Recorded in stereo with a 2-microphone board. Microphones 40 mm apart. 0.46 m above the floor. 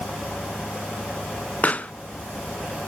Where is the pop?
35° left (ahead or behind), 0.6 m.